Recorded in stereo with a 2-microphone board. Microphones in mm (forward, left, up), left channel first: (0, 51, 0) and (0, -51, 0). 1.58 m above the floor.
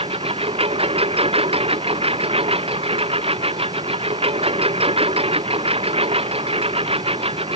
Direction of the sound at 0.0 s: 70° right (ahead or behind).